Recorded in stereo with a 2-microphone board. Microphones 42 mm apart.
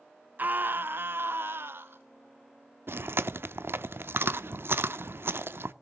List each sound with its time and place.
0.4 s a scream: 45° right (ahead or behind), 0.5 m; by 2.0 s 65° right (ahead or behind), 1.4 m
2.9 s chewing: 65° right (ahead or behind), 0.7 m